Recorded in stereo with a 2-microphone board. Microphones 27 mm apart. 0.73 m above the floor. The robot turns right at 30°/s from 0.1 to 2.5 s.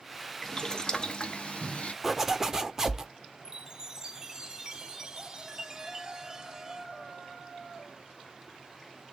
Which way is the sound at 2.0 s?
10° right (ahead or behind).